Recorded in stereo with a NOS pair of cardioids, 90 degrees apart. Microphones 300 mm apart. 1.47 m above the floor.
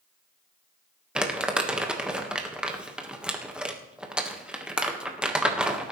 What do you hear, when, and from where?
1.1 s crumpling: 5° right, 1.6 m